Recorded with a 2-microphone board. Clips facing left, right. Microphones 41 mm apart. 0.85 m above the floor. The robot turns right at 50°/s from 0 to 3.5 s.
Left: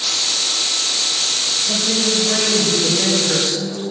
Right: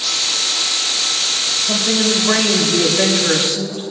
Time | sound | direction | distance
1.6 | a woman speaking | 145° right | 4 m